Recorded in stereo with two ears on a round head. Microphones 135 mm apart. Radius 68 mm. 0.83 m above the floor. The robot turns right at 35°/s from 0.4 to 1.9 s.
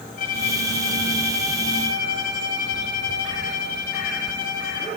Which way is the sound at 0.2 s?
55° left.